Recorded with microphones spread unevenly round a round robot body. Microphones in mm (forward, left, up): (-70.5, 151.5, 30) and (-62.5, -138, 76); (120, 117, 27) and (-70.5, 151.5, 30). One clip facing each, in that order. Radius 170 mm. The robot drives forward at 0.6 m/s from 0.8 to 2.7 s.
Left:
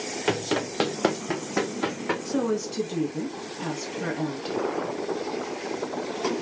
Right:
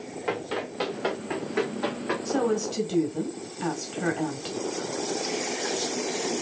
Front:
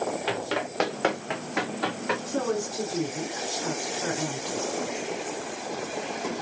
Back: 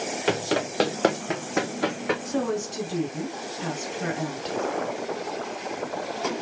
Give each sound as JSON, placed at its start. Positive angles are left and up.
{"t": 0.3, "sound": "running footsteps", "azimuth_deg": 135, "distance_m": 0.6}
{"t": 2.2, "sound": "a woman speaking", "azimuth_deg": 175, "distance_m": 2.5}